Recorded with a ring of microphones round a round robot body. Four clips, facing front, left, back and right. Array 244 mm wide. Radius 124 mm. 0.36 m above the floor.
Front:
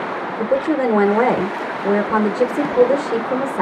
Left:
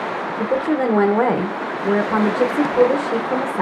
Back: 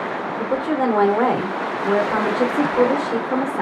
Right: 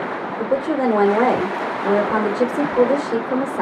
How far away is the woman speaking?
About 1.0 m.